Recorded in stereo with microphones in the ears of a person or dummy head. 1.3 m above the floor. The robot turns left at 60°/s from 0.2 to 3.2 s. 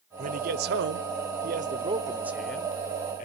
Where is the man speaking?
50° right, 0.6 m; by 3.3 s 130° left, 0.6 m.